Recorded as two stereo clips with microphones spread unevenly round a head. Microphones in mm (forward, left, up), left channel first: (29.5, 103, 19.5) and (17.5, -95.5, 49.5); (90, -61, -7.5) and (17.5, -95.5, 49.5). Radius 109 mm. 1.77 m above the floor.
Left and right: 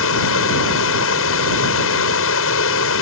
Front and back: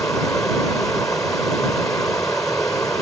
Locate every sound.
0.0 s running water: 115° left